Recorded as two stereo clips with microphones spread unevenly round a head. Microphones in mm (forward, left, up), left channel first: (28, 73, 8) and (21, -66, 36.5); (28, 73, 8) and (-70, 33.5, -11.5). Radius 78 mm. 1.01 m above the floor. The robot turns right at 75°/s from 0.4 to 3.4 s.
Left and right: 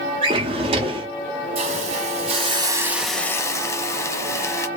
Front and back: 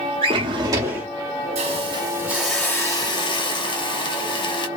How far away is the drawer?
About 0.6 m.